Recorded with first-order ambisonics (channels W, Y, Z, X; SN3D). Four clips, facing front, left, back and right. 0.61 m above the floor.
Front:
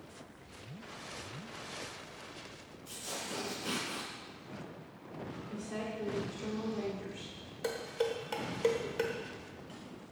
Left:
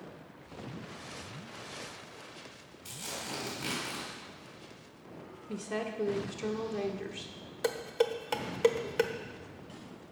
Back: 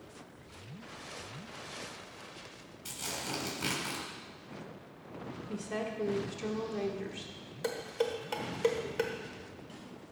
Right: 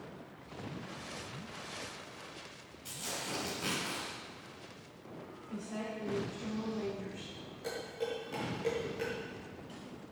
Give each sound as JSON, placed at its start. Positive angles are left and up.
{"t": 2.9, "sound": "tearing paper", "azimuth_deg": 170, "distance_m": 4.5}
{"t": 5.5, "sound": "a woman speaking", "azimuth_deg": 115, "distance_m": 1.4}
{"t": 7.6, "sound": "dishes clattering", "azimuth_deg": 95, "distance_m": 1.2}